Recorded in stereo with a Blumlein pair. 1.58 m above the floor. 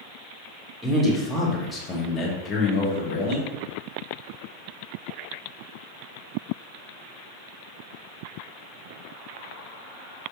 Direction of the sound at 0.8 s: 10° right.